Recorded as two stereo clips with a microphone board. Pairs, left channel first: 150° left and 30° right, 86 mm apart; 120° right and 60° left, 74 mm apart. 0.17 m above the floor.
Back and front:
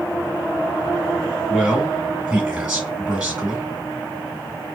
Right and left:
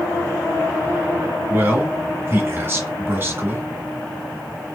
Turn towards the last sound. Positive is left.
turn(degrees=40)